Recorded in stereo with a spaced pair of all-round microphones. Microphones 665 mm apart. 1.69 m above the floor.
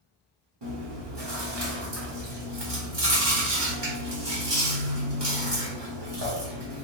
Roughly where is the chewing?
Right.